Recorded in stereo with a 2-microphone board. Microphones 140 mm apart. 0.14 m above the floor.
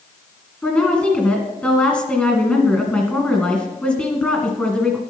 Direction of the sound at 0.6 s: 10° left (ahead or behind).